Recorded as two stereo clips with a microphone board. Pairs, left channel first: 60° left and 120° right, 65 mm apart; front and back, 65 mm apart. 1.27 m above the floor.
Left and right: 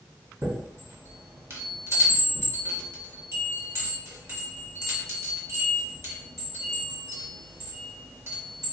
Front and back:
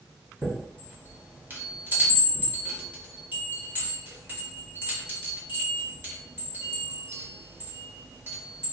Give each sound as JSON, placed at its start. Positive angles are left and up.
{"t": 0.4, "sound": "a chime", "azimuth_deg": -135, "distance_m": 1.5}